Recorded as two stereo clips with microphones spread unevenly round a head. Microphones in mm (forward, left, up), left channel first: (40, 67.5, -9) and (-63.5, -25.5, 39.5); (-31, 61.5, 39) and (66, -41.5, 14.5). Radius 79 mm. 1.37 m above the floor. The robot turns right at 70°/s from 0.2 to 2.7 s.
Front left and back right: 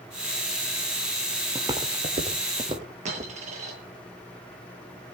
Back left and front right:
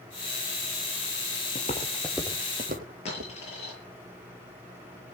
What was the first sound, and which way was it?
Footsteps, 160° left.